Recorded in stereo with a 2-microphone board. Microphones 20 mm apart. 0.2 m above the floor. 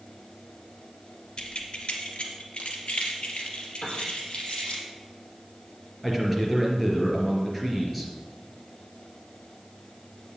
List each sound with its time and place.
1.4 s keys jangling: 50° left (ahead or behind), 2 m
3.8 s a piano: 75° left (ahead or behind), 3.5 m
6.0 s a man speaking: 10° left (ahead or behind), 3.5 m